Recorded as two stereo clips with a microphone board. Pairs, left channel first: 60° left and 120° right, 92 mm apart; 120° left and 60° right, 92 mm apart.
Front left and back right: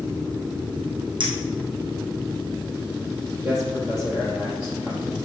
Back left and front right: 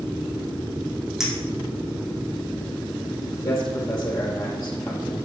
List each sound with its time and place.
1.2 s a clink: 145° right, 3 m
3.4 s a man speaking: 175° left, 3.5 m